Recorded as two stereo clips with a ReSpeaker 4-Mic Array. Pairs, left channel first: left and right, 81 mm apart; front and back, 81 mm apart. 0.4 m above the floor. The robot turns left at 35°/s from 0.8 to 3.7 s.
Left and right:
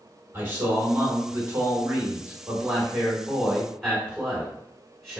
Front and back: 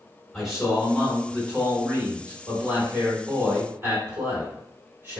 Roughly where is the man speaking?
Right.